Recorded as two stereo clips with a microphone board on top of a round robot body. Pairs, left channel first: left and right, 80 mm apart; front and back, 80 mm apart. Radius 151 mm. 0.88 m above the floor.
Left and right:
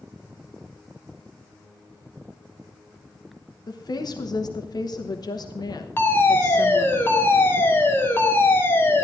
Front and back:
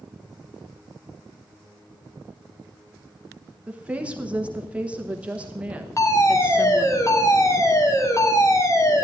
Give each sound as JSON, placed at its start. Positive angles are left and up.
{"t": 3.7, "sound": "a woman speaking", "azimuth_deg": 105, "distance_m": 1.3}
{"t": 6.0, "sound": "a fire alarm", "azimuth_deg": 35, "distance_m": 2.5}